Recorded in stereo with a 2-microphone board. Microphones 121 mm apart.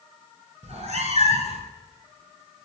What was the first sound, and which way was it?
A cat meowing, 65° right (ahead or behind).